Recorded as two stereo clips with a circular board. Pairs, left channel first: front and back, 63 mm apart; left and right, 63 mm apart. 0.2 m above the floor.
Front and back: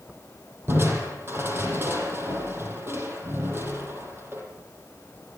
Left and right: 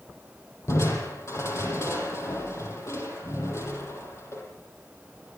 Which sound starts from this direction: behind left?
Crushing, at 0.7 s.